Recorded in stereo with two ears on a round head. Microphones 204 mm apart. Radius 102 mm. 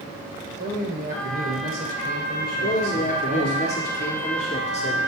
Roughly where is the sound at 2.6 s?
Left.